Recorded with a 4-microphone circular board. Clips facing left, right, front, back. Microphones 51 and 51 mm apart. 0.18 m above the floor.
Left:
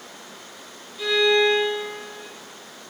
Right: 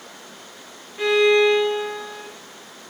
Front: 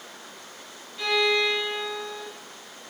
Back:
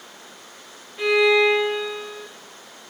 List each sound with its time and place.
1.0 s a violin: 115° right, 3 m